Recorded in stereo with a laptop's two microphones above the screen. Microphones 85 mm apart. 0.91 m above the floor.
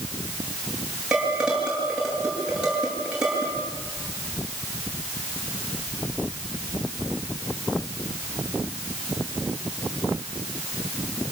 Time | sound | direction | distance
1.1 | dishes clattering | 10° right (ahead or behind) | 9 m